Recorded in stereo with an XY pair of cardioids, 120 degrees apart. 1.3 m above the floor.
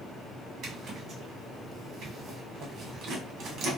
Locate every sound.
0.6 s a zipper: 60° right, 1.1 m